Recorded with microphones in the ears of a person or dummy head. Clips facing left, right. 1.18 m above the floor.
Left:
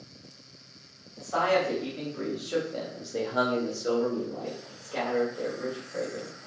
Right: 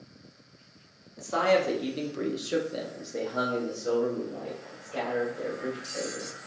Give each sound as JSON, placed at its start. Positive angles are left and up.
{"t": 1.2, "sound": "a man speaking", "side_deg": -55, "distance_m": 1.3}